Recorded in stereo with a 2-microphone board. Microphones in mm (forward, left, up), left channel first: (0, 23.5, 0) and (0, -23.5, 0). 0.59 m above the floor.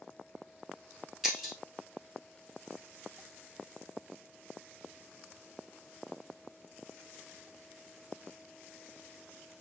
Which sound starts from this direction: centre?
Breaking glass, at 1.2 s.